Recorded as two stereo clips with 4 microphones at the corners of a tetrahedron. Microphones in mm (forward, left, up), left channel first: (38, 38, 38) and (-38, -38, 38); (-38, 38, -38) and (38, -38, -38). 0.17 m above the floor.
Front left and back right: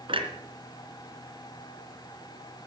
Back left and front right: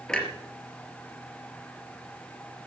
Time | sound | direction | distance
0.1 | a clunk | 145° right | 3 m